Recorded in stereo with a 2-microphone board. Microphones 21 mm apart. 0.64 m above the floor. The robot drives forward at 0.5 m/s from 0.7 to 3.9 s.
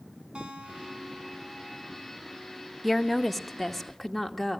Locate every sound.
0.3 s a guitar: 55° right (ahead or behind), 3 m; by 2.1 s 50° right (ahead or behind), 3.5 m
2.8 s a woman speaking: centre (ahead or behind), 1.0 m